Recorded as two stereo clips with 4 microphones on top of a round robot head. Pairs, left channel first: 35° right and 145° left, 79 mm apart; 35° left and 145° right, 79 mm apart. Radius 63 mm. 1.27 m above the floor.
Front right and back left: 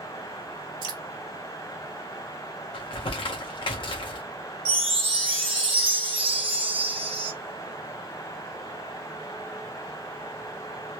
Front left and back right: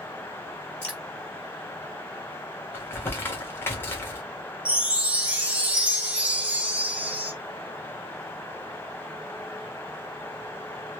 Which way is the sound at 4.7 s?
140° left.